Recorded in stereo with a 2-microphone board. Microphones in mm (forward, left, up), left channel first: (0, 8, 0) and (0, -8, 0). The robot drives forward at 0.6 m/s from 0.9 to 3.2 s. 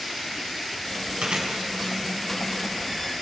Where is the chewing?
70° right (ahead or behind), 4.5 m; by 3.2 s 85° right, 4.5 m.